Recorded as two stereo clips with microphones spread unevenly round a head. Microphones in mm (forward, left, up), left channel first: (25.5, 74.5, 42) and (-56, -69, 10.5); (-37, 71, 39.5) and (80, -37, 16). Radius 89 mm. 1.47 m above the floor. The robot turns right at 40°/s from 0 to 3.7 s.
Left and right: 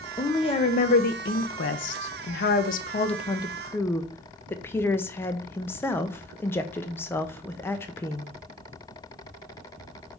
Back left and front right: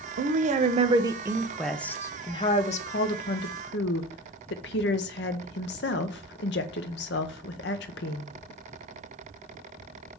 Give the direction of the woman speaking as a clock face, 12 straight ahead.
12 o'clock.